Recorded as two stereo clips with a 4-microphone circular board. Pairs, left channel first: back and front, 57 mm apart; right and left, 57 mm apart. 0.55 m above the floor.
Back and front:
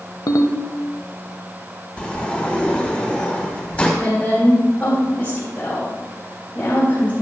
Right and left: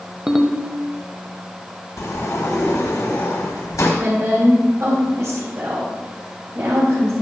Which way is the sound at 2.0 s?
110° right.